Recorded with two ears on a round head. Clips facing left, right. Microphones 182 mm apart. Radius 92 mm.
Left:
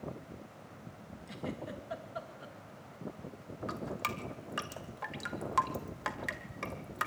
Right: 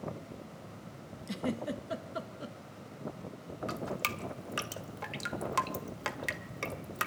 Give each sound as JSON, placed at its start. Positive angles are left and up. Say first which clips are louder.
{"t": 1.3, "sound": "a giggle", "louder": "right 6 dB", "side_deg": -50, "distance_m": 1.9}
{"t": 3.7, "sound": "dripping", "louder": "right 1 dB", "side_deg": -40, "distance_m": 1.6}